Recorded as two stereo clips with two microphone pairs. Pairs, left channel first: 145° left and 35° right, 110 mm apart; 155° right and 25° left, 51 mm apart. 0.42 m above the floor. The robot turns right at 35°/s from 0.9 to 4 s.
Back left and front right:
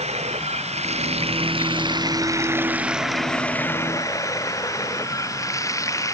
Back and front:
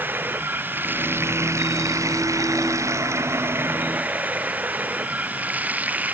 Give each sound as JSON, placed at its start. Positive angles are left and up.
{"t": 0.0, "sound": "running water", "azimuth_deg": -25}